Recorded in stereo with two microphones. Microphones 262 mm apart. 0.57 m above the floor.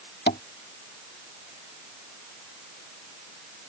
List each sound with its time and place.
0.3 s tapping: 35° left (ahead or behind)